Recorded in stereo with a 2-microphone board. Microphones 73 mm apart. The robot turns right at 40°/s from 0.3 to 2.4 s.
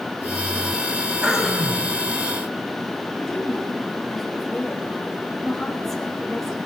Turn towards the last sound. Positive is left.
turn(degrees=5)  # may be behind; listen again after turning